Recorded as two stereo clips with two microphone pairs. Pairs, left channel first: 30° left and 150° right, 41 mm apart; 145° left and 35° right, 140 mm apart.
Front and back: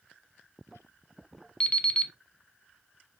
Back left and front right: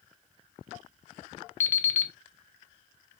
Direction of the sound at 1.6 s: 75° left.